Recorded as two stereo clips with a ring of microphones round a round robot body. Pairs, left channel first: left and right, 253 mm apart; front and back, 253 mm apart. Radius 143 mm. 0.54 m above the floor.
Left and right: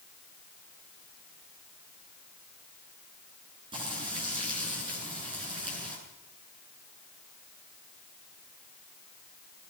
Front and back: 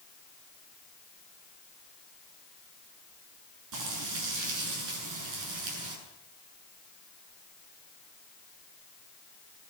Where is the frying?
165° right, 8.5 m.